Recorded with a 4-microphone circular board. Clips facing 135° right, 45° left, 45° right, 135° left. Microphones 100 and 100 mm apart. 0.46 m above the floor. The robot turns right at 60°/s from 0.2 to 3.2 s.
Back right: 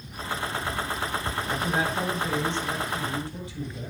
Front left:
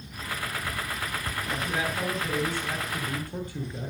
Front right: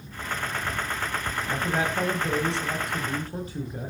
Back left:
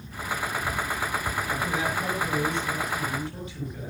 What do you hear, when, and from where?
1.5 s a man speaking: 100° right, 8 m; by 3.9 s 5° left, 8 m